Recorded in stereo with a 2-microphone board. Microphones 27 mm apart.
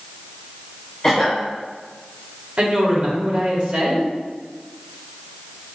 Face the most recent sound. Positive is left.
turn(degrees=-40)  # may be behind; listen again after turning